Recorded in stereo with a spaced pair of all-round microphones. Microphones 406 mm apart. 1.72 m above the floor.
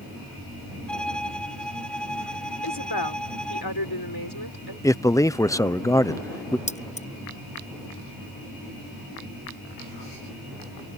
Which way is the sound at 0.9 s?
Centre (ahead or behind).